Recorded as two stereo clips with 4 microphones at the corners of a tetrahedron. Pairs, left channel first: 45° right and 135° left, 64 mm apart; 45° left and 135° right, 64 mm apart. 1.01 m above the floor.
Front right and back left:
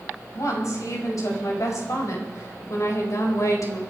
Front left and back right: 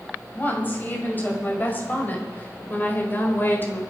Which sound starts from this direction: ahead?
A woman speaking, at 0.3 s.